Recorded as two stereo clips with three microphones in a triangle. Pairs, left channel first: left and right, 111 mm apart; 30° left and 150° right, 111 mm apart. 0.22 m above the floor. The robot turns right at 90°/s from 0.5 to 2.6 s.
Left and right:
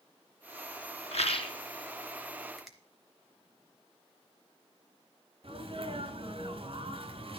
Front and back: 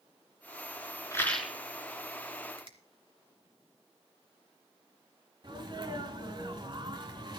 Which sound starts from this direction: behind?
A finger snap, at 2.6 s.